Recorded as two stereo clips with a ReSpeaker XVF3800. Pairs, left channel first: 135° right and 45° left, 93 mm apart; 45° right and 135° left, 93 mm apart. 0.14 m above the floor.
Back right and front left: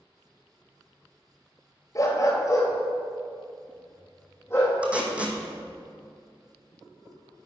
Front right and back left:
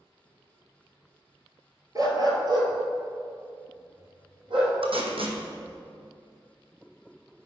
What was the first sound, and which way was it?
A dog barking, straight behind.